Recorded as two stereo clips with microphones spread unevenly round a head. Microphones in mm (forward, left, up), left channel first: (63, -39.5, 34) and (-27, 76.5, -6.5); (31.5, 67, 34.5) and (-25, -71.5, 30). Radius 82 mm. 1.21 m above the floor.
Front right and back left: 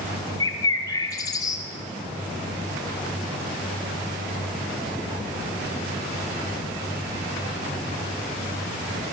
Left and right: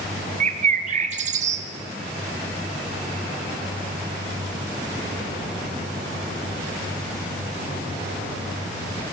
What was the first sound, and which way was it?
A bird, 130° right.